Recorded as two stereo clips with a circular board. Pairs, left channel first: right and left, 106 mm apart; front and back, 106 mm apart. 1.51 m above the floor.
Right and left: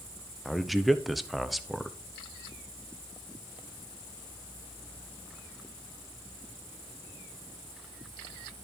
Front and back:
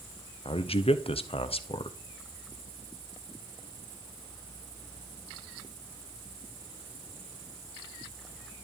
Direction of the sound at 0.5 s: Straight ahead.